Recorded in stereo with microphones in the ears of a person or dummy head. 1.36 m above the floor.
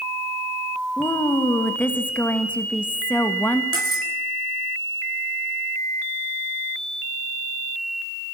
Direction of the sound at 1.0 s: 10° left (ahead or behind).